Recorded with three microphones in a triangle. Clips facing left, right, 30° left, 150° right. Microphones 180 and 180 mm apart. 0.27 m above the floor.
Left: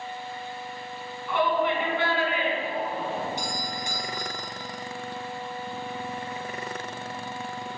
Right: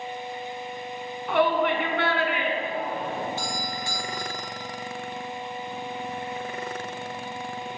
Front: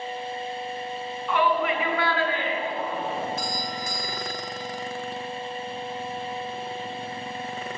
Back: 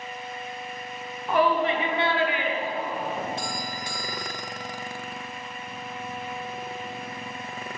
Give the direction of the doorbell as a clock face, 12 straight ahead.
7 o'clock.